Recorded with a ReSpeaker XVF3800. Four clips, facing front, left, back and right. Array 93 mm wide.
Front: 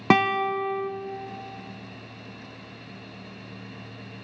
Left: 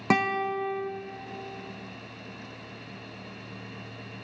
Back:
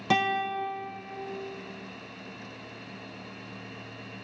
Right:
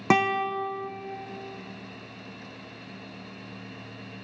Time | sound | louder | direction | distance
0.1 | a guitar | right 2 dB, front 5 dB | 20° right | 0.8 m